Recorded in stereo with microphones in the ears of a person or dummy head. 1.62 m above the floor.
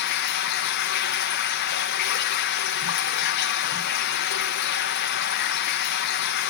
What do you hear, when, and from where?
0.0 s running water: 50° left (ahead or behind), 1.2 m